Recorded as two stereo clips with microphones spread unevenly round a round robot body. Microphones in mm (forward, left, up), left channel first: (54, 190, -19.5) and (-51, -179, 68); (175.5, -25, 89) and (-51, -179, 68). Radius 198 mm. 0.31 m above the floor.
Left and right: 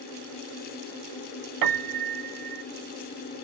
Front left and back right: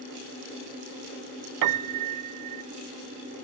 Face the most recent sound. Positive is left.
turn(degrees=-150)